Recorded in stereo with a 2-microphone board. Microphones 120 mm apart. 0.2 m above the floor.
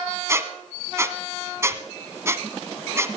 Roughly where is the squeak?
Right.